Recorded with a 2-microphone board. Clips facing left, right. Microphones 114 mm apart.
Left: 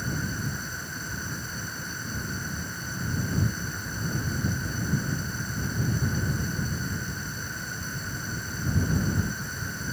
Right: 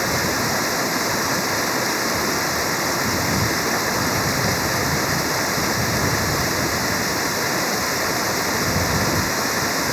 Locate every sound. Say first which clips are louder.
0.0 s running water: right 11 dB; 85° right